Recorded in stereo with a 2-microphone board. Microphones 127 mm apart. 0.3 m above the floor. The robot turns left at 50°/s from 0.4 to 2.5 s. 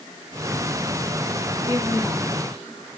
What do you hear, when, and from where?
1.5 s a woman speaking: 140° right, 2.5 m; by 2.3 s straight behind, 2.5 m